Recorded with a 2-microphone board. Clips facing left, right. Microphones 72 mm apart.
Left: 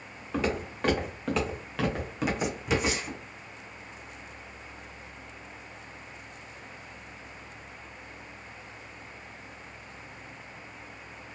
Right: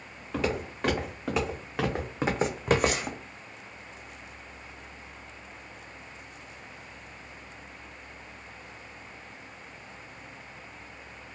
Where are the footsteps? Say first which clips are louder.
Even; 5° left (ahead or behind), 1.5 m; by 3.2 s 65° right (ahead or behind), 0.7 m.